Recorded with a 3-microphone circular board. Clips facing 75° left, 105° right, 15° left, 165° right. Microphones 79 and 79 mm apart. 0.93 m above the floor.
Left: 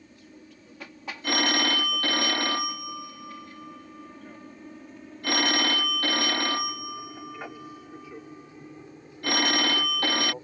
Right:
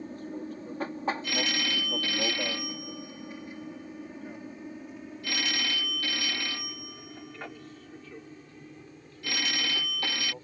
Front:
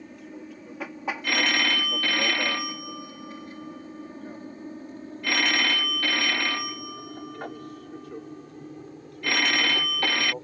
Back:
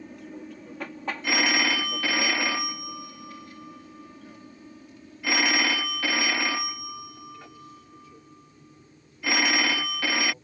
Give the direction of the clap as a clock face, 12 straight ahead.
No clap in this recording.